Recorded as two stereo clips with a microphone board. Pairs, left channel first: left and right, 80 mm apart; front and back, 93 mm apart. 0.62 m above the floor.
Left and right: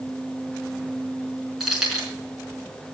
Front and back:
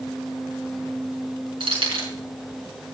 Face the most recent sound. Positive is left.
turn(degrees=-175)